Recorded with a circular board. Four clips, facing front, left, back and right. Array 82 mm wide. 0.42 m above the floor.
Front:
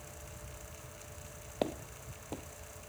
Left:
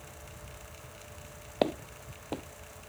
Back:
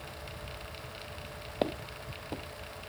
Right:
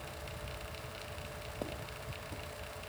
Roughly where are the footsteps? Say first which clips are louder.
Left 14 dB, back 3 dB; left.